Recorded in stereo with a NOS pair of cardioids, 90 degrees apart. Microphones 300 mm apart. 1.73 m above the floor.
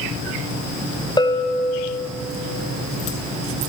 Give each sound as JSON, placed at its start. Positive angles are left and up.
{"t": 1.2, "sound": "a bell", "azimuth_deg": 15, "distance_m": 0.7}